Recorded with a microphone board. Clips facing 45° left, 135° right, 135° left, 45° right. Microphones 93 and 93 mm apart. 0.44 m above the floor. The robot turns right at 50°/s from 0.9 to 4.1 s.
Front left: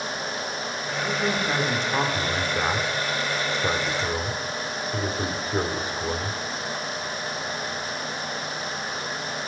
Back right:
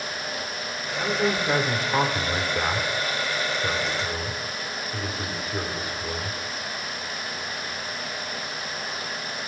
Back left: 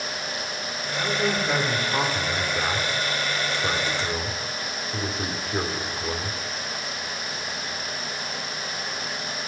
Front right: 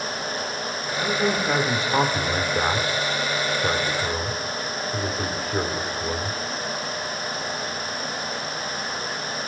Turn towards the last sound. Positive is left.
turn(degrees=50)